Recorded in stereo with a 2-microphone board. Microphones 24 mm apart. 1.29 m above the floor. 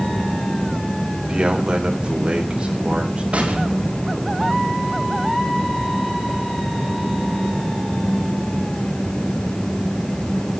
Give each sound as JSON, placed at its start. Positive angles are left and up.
{"t": 1.3, "sound": "a man speaking", "side_deg": -40, "distance_m": 3.5}
{"t": 3.3, "sound": "an explosion", "side_deg": -60, "distance_m": 4.0}